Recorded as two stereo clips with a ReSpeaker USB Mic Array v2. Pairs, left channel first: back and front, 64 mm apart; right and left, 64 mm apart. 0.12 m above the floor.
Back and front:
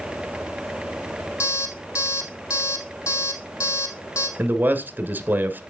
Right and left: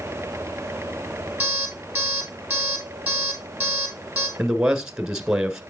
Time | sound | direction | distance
1.4 | an alarm clock | 160° left | 2.5 m
4.4 | a man speaking | 15° left | 1.2 m